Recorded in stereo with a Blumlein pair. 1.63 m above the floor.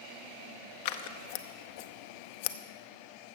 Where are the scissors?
50° left, 0.6 m.